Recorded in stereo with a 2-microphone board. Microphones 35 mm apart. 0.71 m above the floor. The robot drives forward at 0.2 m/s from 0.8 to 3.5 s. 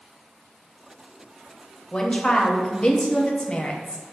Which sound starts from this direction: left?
A woman speaking, at 1.9 s.